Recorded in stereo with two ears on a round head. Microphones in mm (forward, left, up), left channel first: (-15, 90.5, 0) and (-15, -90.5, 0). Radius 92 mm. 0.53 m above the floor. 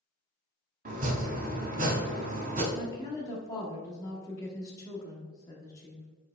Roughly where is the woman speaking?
Centre.